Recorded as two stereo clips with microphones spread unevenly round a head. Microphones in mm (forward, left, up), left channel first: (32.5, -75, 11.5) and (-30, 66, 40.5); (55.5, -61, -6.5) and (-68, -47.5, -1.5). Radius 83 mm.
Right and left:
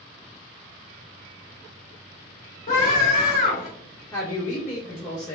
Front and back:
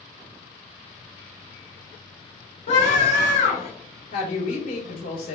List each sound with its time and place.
2.7 s a scream: 25° right, 1.9 m
4.1 s a woman speaking: 5° left, 2.5 m